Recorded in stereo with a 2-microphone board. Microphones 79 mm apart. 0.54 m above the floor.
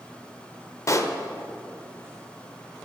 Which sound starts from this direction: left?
A pop, at 0.9 s.